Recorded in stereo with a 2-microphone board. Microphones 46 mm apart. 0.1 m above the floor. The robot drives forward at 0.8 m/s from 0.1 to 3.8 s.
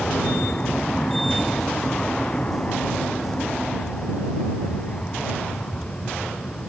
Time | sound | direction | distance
0.0 | an aircraft | 25° left (ahead or behind) | ?